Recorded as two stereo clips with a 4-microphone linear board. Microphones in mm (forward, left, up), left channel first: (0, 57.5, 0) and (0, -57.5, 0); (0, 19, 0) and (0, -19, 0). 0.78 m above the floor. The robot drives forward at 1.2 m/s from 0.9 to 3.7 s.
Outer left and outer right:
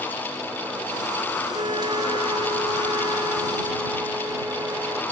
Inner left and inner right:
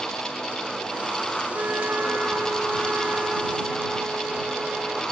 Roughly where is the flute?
Right.